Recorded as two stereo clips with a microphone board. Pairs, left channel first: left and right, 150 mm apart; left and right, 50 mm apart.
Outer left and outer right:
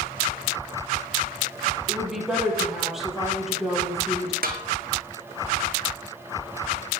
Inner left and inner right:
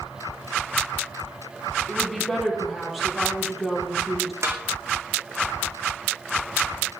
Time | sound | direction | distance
1.9 | a woman speaking | centre (ahead or behind) | 7 m
4.4 | a snare drum | 80° right | 2.5 m